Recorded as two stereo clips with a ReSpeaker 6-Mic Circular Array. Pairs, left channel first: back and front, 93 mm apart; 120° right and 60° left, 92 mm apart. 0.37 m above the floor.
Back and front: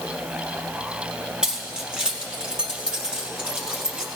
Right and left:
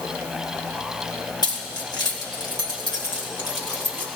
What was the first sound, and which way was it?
Keys jangling, 85° right.